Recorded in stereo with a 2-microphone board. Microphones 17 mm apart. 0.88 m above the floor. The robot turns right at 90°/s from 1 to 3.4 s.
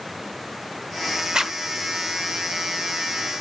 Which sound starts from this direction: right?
A zipper, at 1.3 s.